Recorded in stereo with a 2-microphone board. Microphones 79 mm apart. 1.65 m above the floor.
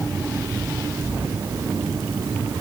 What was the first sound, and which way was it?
Only background noise.